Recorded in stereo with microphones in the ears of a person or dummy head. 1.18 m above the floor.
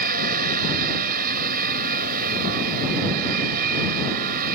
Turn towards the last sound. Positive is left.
turn(degrees=-50)  # may be behind; listen again after turning